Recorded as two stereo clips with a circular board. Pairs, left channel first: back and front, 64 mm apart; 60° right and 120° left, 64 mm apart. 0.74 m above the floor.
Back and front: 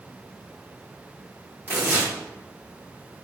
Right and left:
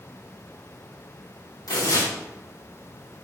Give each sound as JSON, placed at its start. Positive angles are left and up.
{"t": 1.7, "sound": "tearing paper", "azimuth_deg": -55, "distance_m": 5.0}